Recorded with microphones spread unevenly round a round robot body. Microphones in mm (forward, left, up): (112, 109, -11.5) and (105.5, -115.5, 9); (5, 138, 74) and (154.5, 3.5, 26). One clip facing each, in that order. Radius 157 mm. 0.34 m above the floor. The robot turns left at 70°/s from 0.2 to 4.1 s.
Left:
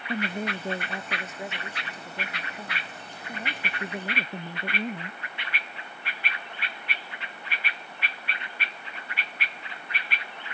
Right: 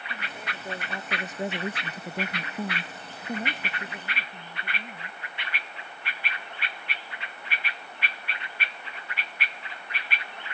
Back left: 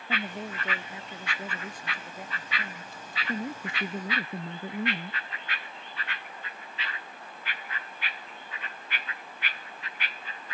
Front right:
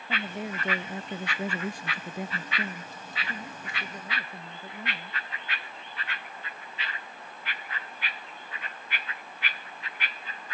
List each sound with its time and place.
0.1 s a woman speaking: 60° left; by 5.2 s 145° left